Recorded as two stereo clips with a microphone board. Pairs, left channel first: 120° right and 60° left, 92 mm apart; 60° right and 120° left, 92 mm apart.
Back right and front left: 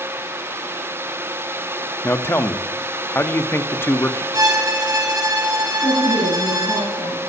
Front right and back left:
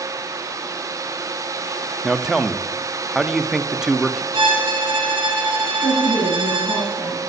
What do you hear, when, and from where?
2.0 s a man speaking: 160° right, 0.6 m
4.3 s a violin: 105° left, 3 m
5.8 s a woman speaking: 125° right, 6.5 m